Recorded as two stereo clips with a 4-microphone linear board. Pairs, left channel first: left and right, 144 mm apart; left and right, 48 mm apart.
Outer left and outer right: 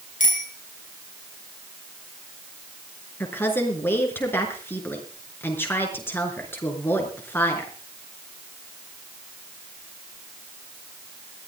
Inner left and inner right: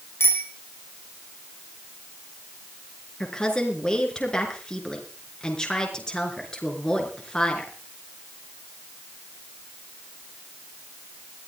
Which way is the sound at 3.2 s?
15° left (ahead or behind).